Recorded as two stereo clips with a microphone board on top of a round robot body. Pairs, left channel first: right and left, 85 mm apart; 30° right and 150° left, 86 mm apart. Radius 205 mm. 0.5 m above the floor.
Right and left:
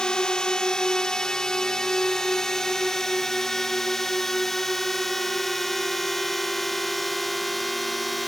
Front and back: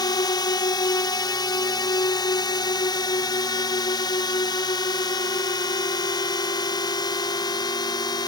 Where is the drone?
10° right; by 8.3 s straight ahead.